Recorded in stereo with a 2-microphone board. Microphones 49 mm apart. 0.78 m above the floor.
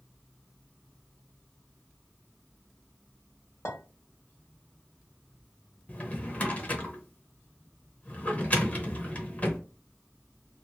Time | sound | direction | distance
3.6 | a clink | 60° left (ahead or behind) | 1.4 m
5.9 | a drawer | 35° left (ahead or behind) | 0.7 m